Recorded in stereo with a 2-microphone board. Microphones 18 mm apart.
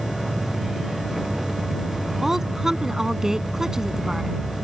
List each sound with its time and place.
0.0 s an insect: 15° right (ahead or behind)
2.2 s a woman speaking: 15° right (ahead or behind)